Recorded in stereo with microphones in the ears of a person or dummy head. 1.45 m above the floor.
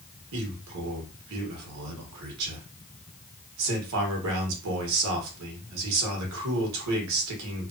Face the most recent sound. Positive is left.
turn(degrees=-80)